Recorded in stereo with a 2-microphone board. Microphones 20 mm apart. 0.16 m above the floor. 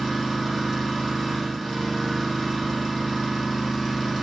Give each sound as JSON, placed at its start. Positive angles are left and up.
{"t": 0.0, "sound": "an engine running", "side_deg": 10, "distance_m": 6.5}